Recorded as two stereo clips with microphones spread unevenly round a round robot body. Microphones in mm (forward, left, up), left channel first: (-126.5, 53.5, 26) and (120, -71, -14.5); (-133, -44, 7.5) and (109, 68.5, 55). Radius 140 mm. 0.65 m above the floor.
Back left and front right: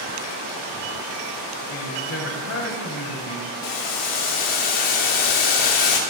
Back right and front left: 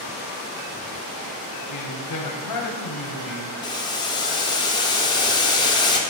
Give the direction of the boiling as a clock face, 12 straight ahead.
7 o'clock.